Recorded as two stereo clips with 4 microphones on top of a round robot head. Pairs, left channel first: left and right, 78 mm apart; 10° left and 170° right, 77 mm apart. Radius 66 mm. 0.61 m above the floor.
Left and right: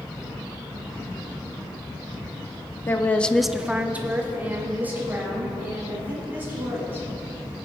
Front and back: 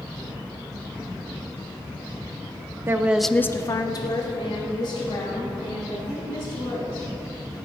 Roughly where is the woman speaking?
Behind left.